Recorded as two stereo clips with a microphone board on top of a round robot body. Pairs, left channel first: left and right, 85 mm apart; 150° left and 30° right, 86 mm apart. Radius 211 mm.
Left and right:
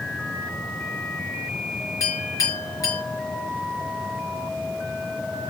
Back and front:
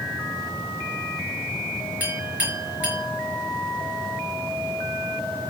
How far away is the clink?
About 4.5 m.